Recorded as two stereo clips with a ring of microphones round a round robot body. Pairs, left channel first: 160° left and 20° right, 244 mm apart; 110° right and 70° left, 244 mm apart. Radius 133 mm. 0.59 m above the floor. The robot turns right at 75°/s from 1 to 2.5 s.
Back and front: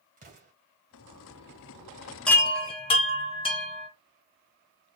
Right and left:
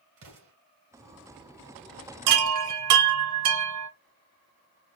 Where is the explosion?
35° left, 2.5 m.